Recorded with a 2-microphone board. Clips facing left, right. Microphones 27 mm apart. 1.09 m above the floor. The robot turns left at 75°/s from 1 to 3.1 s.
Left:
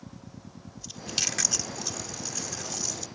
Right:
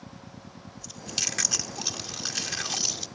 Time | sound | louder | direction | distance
0.8 | chewing | left 1 dB | 20° left (ahead or behind) | ?